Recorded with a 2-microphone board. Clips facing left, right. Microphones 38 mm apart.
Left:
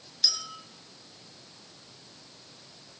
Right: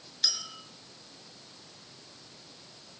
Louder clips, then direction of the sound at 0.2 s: Left 2 dB; 30° right (ahead or behind).